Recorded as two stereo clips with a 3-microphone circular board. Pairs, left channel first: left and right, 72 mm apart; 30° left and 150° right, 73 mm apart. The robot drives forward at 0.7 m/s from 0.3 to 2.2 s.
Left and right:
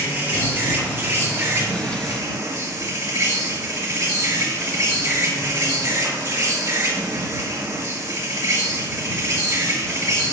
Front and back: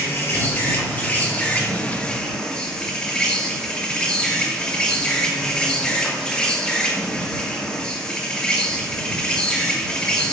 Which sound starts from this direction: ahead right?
An insect, at 0.0 s.